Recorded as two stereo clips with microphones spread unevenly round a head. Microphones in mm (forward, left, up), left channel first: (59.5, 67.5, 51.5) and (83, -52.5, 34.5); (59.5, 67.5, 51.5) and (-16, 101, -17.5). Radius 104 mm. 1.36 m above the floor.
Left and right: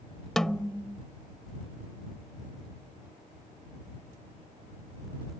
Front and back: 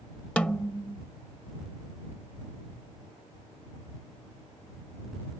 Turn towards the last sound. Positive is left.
turn(degrees=20)